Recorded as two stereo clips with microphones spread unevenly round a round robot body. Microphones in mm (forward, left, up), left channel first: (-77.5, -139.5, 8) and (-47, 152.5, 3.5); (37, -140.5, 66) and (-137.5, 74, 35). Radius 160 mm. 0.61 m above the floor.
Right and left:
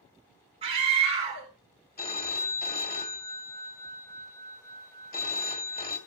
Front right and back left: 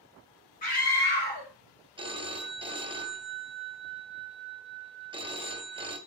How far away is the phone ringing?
About 2 m.